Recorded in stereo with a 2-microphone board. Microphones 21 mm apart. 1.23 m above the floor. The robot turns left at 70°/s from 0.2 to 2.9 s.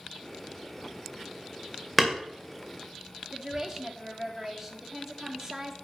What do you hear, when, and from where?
2.0 s hammering: 5° right (ahead or behind), 2 m; by 2.2 s 20° right (ahead or behind), 2 m
3.3 s a woman speaking: 20° right (ahead or behind), 2.5 m